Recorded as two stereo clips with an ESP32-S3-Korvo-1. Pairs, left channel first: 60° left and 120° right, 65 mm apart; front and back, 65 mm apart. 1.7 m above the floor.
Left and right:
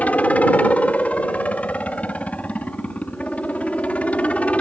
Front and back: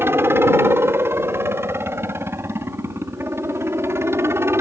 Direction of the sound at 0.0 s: 130° left.